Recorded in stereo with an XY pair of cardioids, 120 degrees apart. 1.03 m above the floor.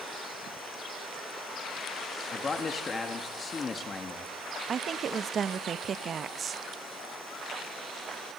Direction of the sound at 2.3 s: 30° left.